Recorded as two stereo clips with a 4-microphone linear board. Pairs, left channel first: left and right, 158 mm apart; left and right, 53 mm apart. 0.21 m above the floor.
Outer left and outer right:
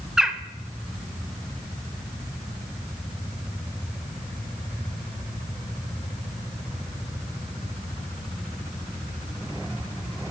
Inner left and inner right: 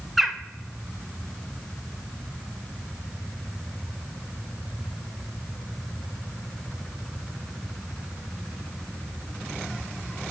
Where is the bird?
5° right (ahead or behind), 0.6 m.